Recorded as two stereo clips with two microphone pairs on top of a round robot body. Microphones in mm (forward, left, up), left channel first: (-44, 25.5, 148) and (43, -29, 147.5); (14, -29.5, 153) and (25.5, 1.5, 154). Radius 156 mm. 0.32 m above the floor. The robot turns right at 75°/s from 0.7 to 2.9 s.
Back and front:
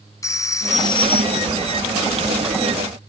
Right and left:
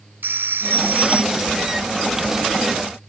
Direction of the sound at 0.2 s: 90° left.